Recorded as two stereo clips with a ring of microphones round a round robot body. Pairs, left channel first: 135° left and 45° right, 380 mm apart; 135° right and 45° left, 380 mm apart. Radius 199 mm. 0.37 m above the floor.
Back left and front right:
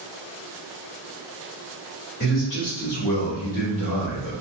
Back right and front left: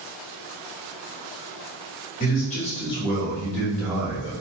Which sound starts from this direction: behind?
A man speaking, at 2.2 s.